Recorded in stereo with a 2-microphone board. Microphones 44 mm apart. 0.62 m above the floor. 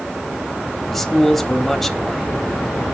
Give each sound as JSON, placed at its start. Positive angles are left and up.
{"t": 0.9, "sound": "a man speaking", "side_deg": 5, "distance_m": 1.1}